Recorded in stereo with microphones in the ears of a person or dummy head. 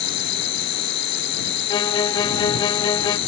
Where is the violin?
25° left (ahead or behind).